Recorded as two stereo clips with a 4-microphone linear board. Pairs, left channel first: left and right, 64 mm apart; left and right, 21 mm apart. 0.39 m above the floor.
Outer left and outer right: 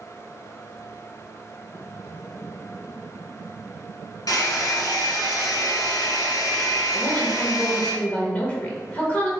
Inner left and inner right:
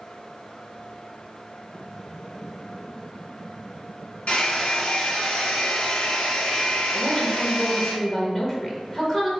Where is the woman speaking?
25° left (ahead or behind), 1.0 m.